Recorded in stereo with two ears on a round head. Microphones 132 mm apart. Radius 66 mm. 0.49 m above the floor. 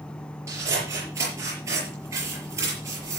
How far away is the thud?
I don't hear a thud.